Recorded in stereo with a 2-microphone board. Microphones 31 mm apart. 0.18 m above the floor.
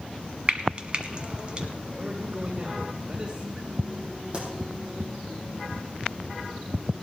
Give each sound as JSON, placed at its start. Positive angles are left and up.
{"t": 0.5, "sound": "frying", "side_deg": -35, "distance_m": 1.1}
{"t": 2.0, "sound": "a man speaking", "side_deg": -30, "distance_m": 4.0}
{"t": 4.3, "sound": "a pop", "side_deg": -35, "distance_m": 5.5}